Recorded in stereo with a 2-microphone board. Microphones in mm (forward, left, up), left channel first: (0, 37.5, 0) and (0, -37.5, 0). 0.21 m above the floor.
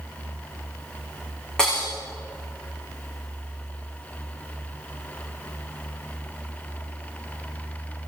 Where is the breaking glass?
10° left (ahead or behind), 5.5 m.